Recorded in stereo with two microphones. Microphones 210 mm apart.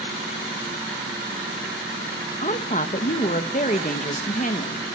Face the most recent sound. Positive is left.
turn(degrees=35)  # may be behind; listen again after turning